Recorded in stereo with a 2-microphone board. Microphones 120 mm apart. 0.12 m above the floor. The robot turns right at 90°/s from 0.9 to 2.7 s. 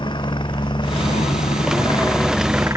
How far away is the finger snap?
No finger snap in this recording.